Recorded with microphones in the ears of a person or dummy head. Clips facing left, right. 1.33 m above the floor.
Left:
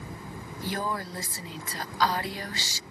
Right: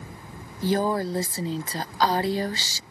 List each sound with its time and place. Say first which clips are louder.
0.6 s a woman speaking: right 9 dB; 25° right (ahead or behind)